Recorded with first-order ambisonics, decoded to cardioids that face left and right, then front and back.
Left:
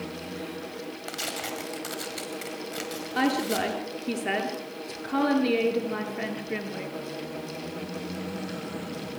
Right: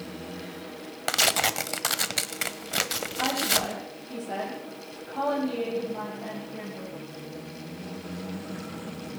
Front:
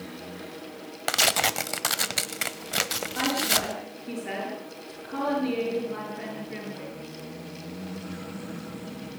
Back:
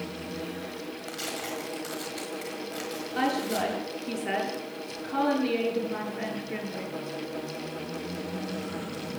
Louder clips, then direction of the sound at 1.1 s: Right 11 dB, front 13 dB; 40° right.